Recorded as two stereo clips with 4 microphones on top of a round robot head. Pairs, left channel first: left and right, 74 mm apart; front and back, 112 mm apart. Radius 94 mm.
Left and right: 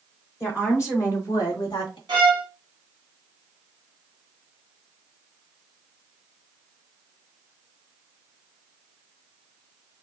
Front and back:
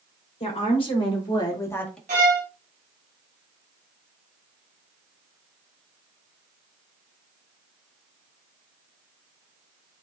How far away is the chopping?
No chopping in this recording.